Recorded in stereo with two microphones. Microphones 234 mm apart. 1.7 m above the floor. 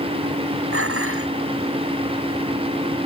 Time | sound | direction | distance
0.7 | dishes clattering | 85° right | ?